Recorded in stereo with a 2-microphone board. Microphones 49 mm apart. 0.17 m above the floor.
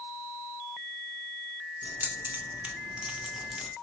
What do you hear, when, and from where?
1.8 s keys jangling: 40° right (ahead or behind), 1.4 m; by 3.7 s centre (ahead or behind), 0.9 m